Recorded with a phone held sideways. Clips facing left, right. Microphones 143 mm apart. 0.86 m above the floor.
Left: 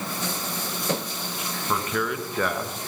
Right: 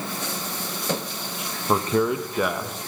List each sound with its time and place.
1.7 s a man speaking: 35° right (ahead or behind), 0.6 m; by 2.8 s centre (ahead or behind), 0.8 m